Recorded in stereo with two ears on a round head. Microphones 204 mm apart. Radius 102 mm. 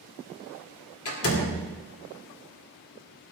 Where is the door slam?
70° left (ahead or behind), 4 m.